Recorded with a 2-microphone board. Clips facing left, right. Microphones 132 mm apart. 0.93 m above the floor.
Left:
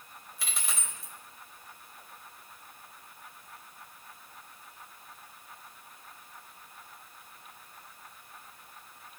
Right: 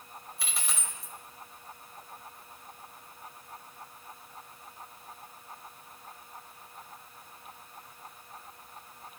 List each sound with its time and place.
0.4 s a dropped coin: centre (ahead or behind), 1.5 m